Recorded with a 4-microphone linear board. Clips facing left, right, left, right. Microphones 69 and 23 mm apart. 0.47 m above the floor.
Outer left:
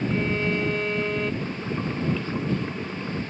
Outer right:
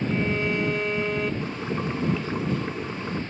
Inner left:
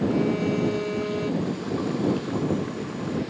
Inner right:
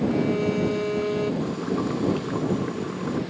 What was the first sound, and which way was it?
A violin, 5° right (ahead or behind).